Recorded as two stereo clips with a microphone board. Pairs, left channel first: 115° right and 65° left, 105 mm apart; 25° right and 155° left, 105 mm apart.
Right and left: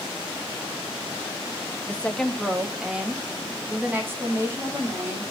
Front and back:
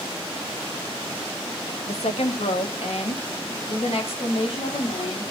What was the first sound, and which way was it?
A woman speaking, 40° right.